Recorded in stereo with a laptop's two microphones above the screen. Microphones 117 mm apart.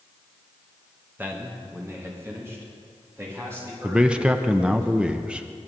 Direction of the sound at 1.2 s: 15° right (ahead or behind).